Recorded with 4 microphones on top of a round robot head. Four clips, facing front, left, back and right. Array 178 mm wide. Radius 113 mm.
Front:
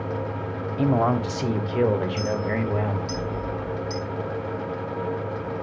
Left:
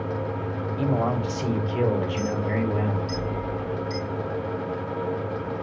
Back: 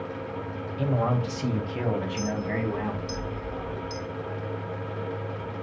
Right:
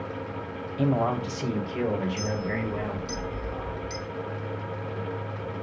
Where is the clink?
35° right, 6 m.